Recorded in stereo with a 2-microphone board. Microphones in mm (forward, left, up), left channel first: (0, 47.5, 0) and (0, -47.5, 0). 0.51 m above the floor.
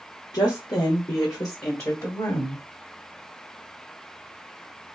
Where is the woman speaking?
45° left (ahead or behind), 1.0 m; by 2.6 s 30° left (ahead or behind), 2 m.